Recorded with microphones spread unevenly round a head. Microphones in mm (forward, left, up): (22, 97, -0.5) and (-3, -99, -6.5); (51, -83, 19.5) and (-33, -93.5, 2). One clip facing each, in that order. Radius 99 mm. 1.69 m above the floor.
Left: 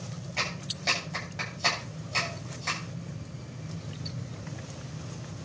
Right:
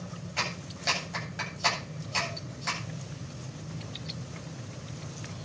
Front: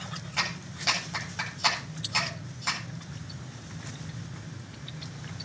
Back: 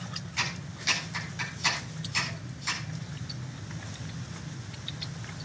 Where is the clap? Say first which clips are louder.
Even, front 2 dB; 15° right, 8.5 m.